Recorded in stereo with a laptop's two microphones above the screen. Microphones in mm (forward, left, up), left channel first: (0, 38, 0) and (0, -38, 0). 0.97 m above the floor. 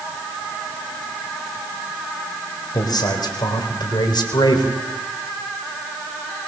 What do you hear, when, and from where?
2.7 s a man speaking: 60° left (ahead or behind), 4 m; by 4.8 s 75° left (ahead or behind), 3.5 m